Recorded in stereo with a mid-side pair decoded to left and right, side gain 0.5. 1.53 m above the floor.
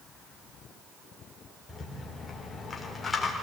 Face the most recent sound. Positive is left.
turn(degrees=25)